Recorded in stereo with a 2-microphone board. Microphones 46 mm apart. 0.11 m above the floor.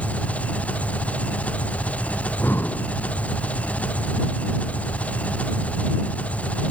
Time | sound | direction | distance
0.0 | an engine running | 30° left (ahead or behind) | ?
2.2 | breathing | 50° left (ahead or behind) | ?